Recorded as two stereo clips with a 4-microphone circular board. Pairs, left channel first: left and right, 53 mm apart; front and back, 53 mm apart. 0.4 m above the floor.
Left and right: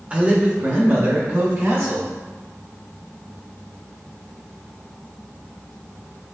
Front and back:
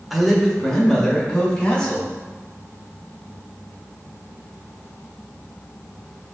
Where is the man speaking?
90° right, 0.9 m; by 2.1 s 65° right, 1.7 m.